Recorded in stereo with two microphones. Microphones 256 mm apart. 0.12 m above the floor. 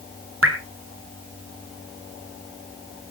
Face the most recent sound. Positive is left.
turn(degrees=-55)  # may be behind; listen again after turning